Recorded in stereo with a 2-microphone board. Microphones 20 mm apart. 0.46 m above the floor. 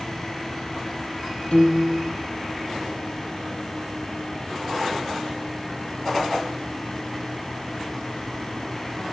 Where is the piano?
60° left (ahead or behind), 6 m.